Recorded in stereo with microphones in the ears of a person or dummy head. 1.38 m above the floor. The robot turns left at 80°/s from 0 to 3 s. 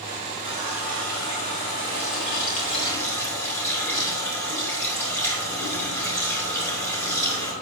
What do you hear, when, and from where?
0.4 s a running tap: 140° right, 3.5 m; by 7.5 s 15° left, 3.5 m